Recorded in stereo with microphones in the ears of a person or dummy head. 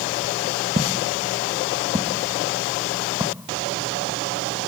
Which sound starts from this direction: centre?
Footsteps, at 0.8 s.